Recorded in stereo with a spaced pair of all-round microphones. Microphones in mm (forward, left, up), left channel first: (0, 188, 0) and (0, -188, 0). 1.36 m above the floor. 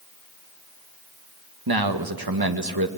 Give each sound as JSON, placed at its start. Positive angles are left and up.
{"t": 1.7, "sound": "a man speaking", "side_deg": -75, "distance_m": 1.3}